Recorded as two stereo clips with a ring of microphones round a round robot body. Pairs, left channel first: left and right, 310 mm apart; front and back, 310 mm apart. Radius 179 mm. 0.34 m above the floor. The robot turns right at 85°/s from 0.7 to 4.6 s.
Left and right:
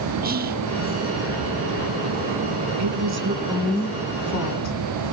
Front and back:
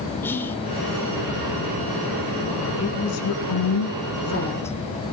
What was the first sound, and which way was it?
Whispering, 75° right.